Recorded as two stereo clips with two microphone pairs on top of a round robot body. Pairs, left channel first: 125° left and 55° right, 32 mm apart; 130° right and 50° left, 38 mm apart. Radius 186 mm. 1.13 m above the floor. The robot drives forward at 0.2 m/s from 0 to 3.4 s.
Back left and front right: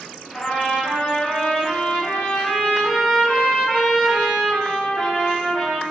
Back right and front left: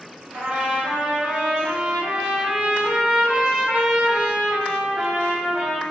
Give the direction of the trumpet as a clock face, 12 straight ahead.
9 o'clock.